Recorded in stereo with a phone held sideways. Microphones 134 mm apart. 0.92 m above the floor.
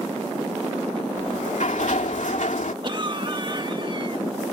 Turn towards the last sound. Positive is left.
turn(degrees=-40)  # may be behind; listen again after turning